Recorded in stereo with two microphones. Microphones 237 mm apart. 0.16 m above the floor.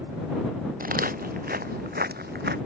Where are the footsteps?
35° right (ahead or behind); by 2.6 s 45° right (ahead or behind).